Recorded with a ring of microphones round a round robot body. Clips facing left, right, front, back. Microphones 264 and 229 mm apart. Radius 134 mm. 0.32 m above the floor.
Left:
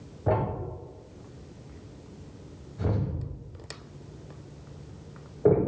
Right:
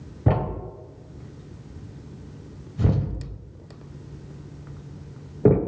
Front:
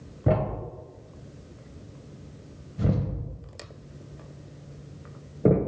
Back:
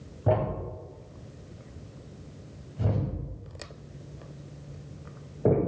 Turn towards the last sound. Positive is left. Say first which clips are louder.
# right 2 dB, front 1 dB
turn(degrees=-65)